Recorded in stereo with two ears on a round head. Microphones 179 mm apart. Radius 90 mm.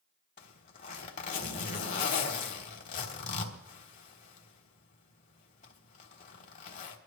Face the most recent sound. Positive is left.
turn(degrees=40)  # may be behind; listen again after turning